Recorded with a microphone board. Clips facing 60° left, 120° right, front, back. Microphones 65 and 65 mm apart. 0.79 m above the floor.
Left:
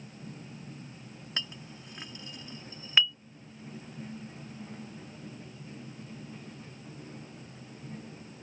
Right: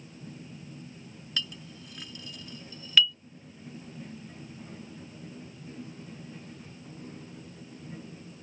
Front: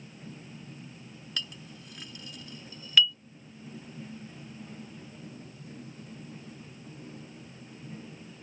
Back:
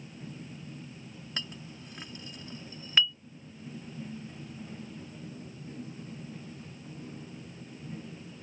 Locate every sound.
1.4 s a clink: 120° left